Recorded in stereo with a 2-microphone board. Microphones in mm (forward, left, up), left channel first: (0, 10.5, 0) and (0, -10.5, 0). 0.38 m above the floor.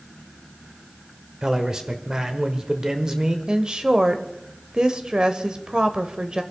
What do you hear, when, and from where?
1.4 s a man speaking: 25° right (ahead or behind), 1.3 m
3.5 s a woman speaking: 35° right (ahead or behind), 1.1 m